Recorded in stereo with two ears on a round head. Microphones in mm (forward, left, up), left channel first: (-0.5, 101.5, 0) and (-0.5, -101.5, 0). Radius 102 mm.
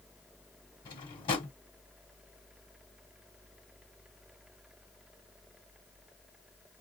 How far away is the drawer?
About 1.4 m.